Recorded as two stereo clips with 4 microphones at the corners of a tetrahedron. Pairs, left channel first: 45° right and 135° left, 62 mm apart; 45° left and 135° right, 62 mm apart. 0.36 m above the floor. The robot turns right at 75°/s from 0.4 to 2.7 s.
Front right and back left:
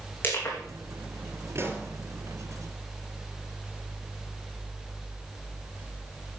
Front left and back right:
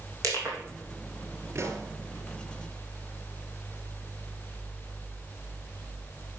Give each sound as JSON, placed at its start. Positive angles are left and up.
{"t": 0.2, "sound": "crushing", "azimuth_deg": -100, "distance_m": 3.5}
{"t": 1.6, "sound": "a pop", "azimuth_deg": 180, "distance_m": 3.5}